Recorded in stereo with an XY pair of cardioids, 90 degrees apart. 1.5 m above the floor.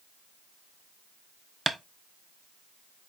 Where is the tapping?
20° right, 0.5 m.